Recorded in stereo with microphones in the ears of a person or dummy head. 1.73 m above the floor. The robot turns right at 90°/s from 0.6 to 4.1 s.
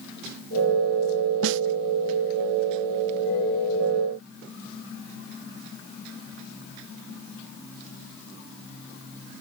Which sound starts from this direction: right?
A snare drum, at 1.4 s.